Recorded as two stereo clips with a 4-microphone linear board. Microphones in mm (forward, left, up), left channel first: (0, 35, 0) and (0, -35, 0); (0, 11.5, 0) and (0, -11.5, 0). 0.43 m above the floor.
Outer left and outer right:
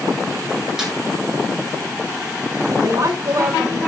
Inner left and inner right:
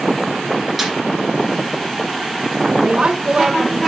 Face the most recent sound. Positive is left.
turn(degrees=-50)  # may be behind; listen again after turning